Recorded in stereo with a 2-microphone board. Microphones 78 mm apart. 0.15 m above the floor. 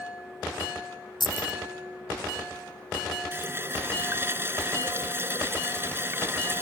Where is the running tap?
30° right (ahead or behind).